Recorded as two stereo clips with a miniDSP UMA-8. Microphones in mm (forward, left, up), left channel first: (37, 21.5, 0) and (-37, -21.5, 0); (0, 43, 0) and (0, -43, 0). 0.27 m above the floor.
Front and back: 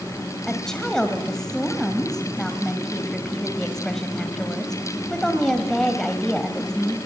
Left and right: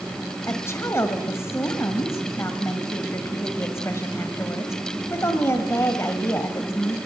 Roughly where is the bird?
No bird in this recording.